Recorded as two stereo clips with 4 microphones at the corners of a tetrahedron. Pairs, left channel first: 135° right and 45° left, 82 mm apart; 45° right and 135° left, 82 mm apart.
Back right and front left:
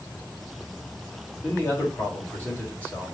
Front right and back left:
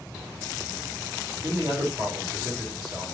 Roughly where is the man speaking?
Behind.